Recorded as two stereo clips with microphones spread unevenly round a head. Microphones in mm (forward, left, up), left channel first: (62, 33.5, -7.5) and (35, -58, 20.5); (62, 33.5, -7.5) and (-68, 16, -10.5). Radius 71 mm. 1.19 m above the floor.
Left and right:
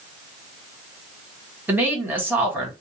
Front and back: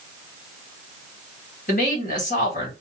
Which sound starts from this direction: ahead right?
A woman speaking, at 1.7 s.